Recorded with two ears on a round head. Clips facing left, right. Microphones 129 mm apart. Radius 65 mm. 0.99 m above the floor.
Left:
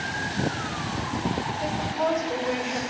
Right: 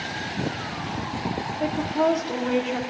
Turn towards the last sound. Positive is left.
turn(degrees=-85)